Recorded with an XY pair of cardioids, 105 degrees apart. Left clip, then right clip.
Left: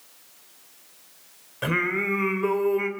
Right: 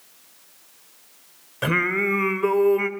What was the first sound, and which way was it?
Singing, 25° right.